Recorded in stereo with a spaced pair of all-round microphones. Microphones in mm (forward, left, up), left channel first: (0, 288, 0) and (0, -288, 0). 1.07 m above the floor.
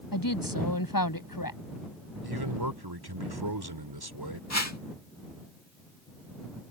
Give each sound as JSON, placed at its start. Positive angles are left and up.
{"t": 0.1, "sound": "a woman speaking", "side_deg": 35}
{"t": 2.2, "sound": "a man speaking", "side_deg": -40}
{"t": 4.5, "sound": "a whoosh", "side_deg": 30}